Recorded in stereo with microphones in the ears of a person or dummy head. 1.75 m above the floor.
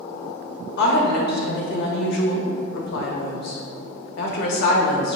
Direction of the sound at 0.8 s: 65° left (ahead or behind).